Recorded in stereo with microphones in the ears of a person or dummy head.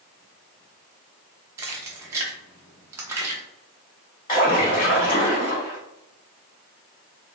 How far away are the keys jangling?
About 0.6 m.